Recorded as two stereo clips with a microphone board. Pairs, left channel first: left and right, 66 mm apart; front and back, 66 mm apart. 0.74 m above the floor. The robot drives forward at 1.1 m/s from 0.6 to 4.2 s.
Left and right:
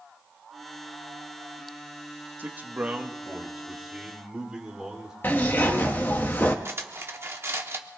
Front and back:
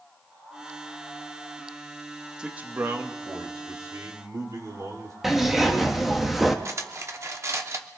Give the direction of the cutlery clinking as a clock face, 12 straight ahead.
5 o'clock.